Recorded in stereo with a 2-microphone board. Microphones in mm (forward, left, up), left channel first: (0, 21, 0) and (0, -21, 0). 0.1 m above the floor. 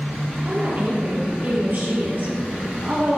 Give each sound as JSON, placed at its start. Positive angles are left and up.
{"t": 0.5, "sound": "a woman speaking", "side_deg": -50, "distance_m": 3.0}